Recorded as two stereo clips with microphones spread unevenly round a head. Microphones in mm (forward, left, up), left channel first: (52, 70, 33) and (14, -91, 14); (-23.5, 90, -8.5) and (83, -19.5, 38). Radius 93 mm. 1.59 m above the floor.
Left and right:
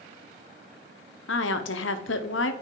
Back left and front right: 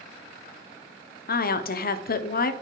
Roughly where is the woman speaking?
Left.